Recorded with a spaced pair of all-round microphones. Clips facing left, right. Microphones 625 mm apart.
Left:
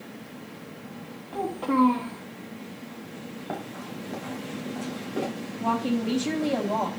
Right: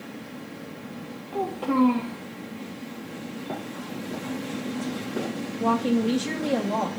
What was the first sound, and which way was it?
A child speaking, 50° right (ahead or behind).